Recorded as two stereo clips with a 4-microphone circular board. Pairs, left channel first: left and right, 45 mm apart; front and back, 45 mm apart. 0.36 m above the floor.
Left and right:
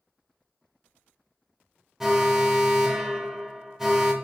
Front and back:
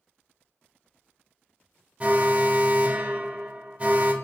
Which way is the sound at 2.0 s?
160° right.